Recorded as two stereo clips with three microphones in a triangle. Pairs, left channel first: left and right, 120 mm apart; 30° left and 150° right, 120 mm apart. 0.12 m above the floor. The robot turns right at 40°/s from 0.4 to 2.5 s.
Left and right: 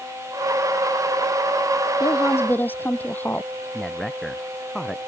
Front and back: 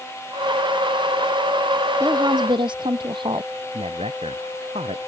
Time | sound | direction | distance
2.0 | a woman speaking | 145° left | ?
3.7 | a man speaking | 175° left | ?